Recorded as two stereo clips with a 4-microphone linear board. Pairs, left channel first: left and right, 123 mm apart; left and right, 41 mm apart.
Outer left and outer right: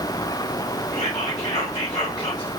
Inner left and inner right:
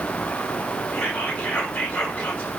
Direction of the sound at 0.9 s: 55° left (ahead or behind).